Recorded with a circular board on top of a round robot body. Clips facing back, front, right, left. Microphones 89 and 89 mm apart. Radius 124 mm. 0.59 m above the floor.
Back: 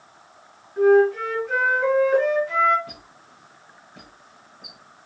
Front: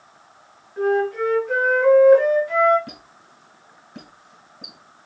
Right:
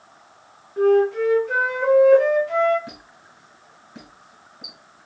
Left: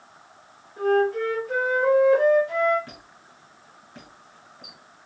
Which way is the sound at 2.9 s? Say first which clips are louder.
Front 1 dB, right 4 dB; 20° right.